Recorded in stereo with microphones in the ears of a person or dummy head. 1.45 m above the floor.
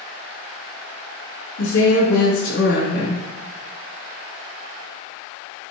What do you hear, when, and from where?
1.6 s a woman speaking: 70° left (ahead or behind), 3 m